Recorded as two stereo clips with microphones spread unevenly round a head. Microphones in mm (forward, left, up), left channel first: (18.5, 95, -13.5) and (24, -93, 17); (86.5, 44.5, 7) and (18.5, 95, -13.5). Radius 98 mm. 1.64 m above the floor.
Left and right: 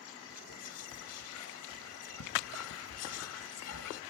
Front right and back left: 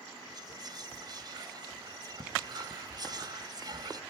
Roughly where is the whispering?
Left.